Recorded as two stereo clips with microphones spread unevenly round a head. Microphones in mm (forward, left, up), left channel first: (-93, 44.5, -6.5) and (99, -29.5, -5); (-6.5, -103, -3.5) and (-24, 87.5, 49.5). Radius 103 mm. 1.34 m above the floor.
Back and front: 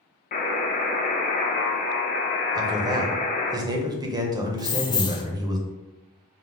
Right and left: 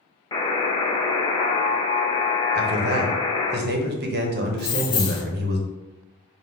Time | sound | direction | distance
0.3 | a buzzer | 165° right | 0.7 m
2.5 | a man speaking | 50° left | 0.8 m
4.6 | keys jangling | 160° right | 0.5 m